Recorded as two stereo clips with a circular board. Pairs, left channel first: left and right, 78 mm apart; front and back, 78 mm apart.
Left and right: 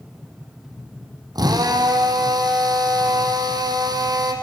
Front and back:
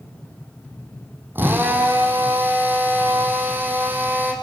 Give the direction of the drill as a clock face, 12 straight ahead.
4 o'clock.